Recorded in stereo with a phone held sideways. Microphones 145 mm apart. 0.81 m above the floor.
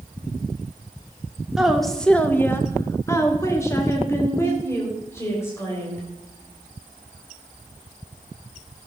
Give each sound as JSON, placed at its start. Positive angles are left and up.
{"t": 1.6, "sound": "a woman speaking", "side_deg": -5, "distance_m": 1.3}